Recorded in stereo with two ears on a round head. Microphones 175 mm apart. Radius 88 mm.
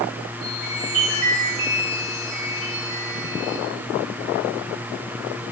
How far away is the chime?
About 8 m.